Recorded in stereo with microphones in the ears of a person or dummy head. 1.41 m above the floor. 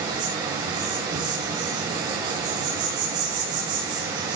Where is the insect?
20° right (ahead or behind), 7.5 m.